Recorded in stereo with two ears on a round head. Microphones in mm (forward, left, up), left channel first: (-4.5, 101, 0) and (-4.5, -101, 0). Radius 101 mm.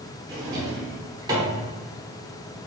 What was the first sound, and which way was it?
A drawer, 20° right (ahead or behind).